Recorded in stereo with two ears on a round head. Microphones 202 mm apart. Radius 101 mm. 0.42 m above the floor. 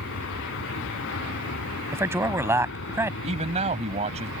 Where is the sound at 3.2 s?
30° right (ahead or behind).